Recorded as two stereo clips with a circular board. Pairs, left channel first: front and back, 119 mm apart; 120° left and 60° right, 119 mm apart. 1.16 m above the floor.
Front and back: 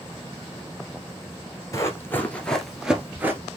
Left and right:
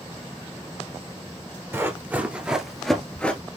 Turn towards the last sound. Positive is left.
turn(degrees=170)